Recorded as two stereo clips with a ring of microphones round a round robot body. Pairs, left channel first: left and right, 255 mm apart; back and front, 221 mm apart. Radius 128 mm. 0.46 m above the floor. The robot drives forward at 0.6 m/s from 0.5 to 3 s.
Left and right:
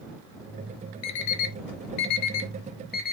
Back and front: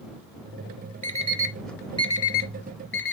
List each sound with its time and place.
1.0 s an alarm clock: 55° left, 0.7 m; by 3.1 s 145° left, 1.0 m